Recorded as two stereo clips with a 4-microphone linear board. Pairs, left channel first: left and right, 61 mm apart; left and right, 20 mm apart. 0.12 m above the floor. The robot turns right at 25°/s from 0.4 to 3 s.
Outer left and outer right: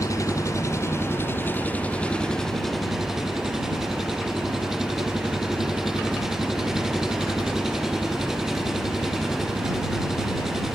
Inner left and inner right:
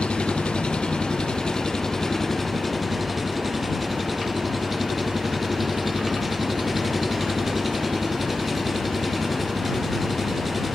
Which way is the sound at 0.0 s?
120° left.